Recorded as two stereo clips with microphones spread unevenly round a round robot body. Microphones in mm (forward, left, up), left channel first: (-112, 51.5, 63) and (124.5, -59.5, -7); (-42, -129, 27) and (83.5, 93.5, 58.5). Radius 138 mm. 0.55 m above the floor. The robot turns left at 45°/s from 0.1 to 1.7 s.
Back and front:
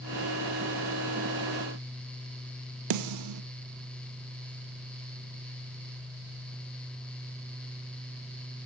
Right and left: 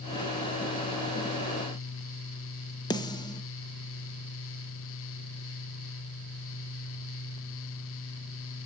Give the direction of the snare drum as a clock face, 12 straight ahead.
1 o'clock.